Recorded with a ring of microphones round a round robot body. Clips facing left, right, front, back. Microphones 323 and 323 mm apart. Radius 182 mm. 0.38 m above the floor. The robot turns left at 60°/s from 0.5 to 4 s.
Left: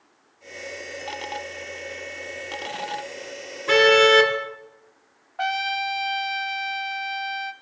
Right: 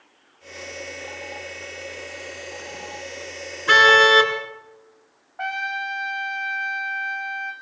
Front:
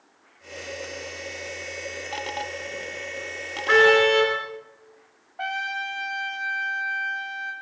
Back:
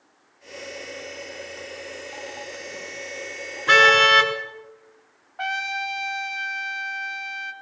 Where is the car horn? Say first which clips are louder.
Left 3 dB, front 5 dB; 150° right, 3.5 m; by 4.3 s 170° right, 3.5 m.